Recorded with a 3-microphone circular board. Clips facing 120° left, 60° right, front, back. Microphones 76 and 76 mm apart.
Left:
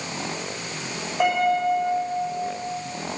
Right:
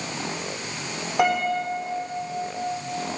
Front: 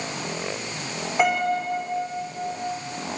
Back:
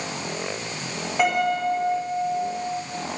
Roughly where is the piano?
Right.